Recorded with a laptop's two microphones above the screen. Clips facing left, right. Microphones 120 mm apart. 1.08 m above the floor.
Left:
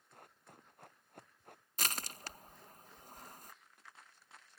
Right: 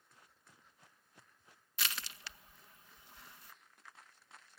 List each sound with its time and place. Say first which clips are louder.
0.1 s running footsteps: left 8 dB; 55° left (ahead or behind)
1.8 s crushing: left 2 dB; 40° left (ahead or behind)